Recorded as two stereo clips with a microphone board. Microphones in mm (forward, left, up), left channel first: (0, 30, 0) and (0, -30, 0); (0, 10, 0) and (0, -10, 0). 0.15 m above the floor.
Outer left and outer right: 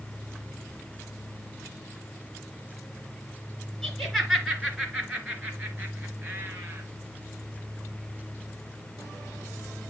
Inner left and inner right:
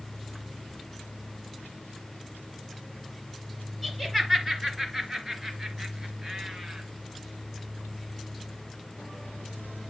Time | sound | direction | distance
3.8 | laughter | 5° left (ahead or behind) | 2.5 m